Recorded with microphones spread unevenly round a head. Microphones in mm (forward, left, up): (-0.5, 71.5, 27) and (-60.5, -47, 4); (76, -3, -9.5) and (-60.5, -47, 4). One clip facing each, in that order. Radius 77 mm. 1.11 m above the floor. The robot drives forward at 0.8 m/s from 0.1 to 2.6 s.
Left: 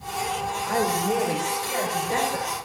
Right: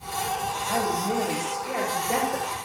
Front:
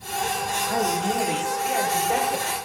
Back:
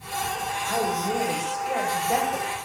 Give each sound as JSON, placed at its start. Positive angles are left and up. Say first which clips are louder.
{"t": 0.7, "sound": "a woman speaking", "louder": "left 3 dB, front 1 dB", "azimuth_deg": -50, "distance_m": 3.5}